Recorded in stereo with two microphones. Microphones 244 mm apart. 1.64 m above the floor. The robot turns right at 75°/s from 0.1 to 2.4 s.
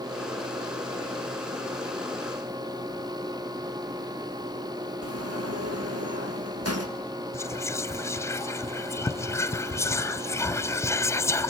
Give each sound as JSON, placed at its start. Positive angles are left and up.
{"t": 5.0, "sound": "a sliding door", "side_deg": -75, "distance_m": 1.7}
{"t": 7.3, "sound": "whispering", "side_deg": 10, "distance_m": 0.6}